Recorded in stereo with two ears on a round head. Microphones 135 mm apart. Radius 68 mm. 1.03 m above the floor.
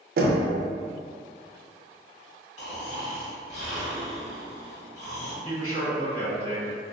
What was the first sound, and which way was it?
Knocking, 65° right (ahead or behind).